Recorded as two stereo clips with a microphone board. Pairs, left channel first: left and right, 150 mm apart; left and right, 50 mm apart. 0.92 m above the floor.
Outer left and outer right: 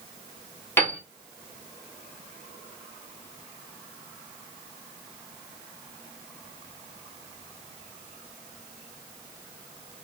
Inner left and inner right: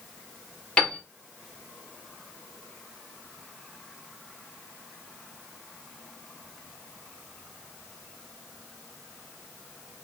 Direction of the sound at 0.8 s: 15° left (ahead or behind).